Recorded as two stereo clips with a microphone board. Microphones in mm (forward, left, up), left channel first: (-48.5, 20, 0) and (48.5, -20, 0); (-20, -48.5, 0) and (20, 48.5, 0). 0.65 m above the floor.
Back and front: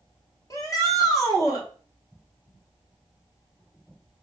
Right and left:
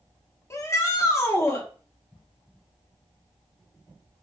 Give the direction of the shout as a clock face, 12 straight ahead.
5 o'clock.